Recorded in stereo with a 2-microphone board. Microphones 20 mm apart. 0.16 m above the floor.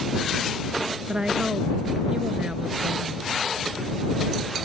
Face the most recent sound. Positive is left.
turn(degrees=-40)  # may be behind; listen again after turning